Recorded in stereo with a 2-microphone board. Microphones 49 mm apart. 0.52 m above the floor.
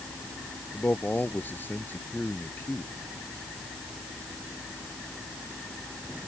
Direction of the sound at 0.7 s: 35° left (ahead or behind).